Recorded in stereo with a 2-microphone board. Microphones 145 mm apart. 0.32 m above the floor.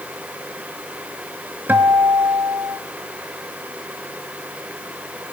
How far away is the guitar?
About 1.2 m.